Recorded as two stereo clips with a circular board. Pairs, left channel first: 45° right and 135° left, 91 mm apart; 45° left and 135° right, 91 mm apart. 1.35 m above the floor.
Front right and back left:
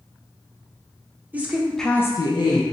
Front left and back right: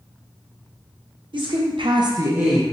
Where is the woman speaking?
155° right, 0.9 m; by 2.6 s 50° right, 0.7 m.